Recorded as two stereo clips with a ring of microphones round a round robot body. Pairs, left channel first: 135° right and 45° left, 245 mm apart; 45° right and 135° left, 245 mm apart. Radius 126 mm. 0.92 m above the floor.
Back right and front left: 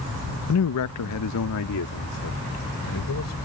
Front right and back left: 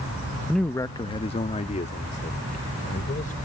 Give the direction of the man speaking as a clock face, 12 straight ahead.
5 o'clock.